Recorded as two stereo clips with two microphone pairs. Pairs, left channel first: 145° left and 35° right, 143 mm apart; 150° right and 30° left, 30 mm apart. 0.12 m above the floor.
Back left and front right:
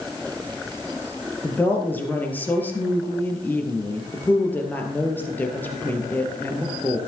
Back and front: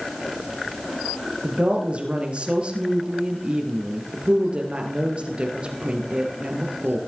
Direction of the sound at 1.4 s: 70° left.